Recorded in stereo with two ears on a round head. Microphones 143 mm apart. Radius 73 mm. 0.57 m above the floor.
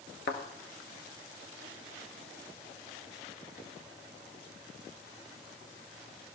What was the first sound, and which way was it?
A thud, 60° left (ahead or behind).